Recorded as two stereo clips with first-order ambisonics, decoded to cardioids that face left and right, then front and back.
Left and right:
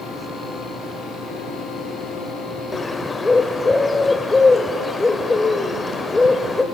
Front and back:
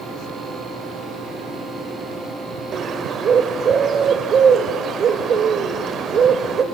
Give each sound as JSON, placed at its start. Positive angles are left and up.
{"t": 2.7, "sound": "a bird", "azimuth_deg": 160, "distance_m": 0.8}